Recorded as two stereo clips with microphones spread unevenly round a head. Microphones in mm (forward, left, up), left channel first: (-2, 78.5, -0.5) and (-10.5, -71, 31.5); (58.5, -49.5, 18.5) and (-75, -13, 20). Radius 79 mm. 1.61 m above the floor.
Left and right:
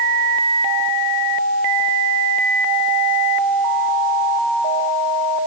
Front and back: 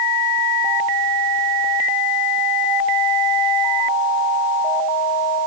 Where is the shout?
I don't hear a shout.